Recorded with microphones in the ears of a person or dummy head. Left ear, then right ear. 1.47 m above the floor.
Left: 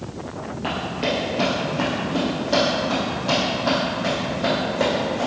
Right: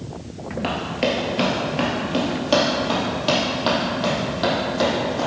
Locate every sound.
0.6 s running footsteps: 30° right (ahead or behind), 1.8 m; by 5.3 s 55° right (ahead or behind), 3.5 m